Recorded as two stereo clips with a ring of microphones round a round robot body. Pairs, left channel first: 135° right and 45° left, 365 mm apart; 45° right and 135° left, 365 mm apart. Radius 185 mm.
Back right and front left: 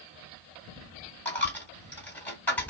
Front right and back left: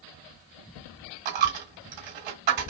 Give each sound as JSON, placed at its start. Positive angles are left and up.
{"t": 1.2, "sound": "a dropped coin", "azimuth_deg": 140, "distance_m": 1.8}